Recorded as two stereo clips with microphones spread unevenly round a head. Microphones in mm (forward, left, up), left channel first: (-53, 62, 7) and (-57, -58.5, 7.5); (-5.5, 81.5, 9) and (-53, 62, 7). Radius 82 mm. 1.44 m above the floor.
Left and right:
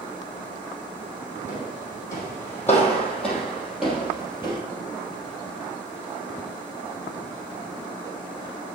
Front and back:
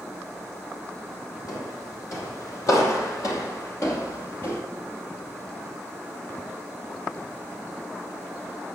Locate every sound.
1.5 s footsteps: 25° left, 3.5 m; by 4.6 s 20° right, 2.5 m